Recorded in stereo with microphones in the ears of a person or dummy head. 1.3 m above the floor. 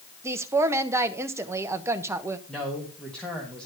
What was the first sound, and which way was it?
A woman speaking, 15° right (ahead or behind).